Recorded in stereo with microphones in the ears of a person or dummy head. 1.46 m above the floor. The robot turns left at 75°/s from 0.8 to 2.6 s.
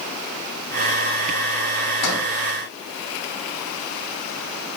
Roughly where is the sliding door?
Left.